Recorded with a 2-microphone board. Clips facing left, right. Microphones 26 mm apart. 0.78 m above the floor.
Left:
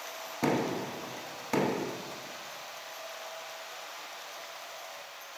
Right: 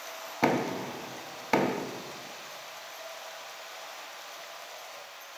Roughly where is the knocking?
Right.